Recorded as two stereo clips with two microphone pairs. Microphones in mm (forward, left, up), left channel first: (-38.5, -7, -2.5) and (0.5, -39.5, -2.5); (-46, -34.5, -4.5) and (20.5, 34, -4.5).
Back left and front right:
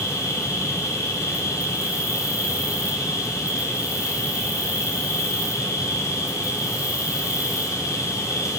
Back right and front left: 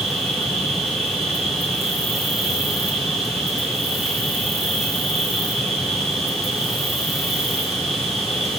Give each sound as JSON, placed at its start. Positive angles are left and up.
{"t": 0.0, "sound": "an insect", "azimuth_deg": 135, "distance_m": 4.0}